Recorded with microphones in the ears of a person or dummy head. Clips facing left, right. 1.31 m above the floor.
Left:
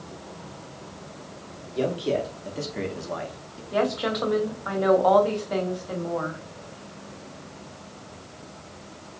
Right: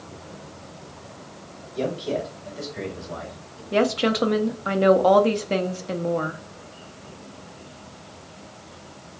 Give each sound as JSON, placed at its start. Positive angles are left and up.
{"t": 1.7, "sound": "a man speaking", "side_deg": 30, "distance_m": 1.9}
{"t": 3.7, "sound": "a woman speaking", "side_deg": -40, "distance_m": 0.5}